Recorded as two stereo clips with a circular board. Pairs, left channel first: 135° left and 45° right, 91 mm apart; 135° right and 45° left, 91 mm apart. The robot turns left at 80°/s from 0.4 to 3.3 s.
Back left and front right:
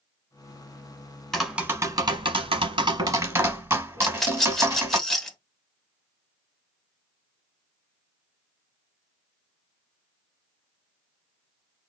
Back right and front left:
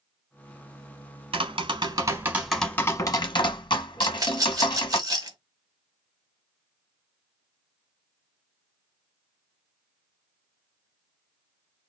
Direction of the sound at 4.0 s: 55° left.